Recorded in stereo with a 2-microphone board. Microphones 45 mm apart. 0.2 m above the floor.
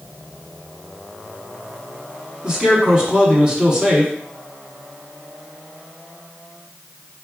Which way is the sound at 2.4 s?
20° right (ahead or behind).